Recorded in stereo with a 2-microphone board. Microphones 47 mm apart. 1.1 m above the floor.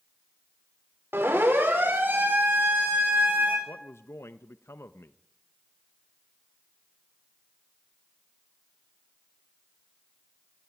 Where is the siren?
60° right (ahead or behind), 5 m; by 3.6 s 45° right (ahead or behind), 7.5 m.